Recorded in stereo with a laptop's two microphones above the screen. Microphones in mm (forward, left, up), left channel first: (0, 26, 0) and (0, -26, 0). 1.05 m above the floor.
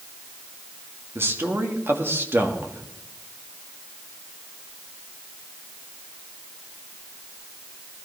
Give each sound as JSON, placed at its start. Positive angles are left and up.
{"t": 1.1, "sound": "a man speaking", "side_deg": -50, "distance_m": 1.8}